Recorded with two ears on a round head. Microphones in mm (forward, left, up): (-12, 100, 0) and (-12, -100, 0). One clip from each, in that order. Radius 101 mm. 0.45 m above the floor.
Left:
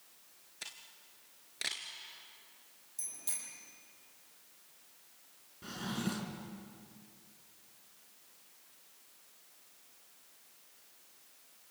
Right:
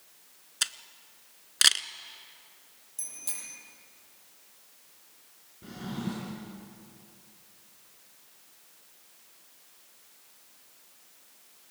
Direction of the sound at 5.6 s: 55° left (ahead or behind).